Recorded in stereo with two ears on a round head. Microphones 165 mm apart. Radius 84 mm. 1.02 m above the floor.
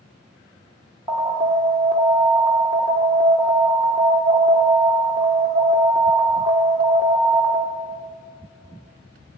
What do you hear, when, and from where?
1.1 s an alarm: 20° right (ahead or behind), 1.4 m